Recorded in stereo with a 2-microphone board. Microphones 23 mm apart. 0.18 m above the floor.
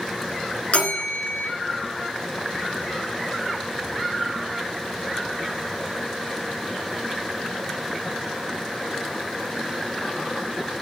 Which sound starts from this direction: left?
A bell, at 0.7 s.